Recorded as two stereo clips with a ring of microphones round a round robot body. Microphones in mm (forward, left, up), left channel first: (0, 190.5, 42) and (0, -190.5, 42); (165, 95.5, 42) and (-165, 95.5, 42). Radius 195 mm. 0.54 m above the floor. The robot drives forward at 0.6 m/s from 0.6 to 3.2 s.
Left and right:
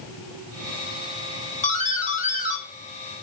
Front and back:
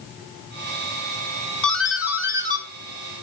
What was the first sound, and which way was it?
A doorbell, 80° left.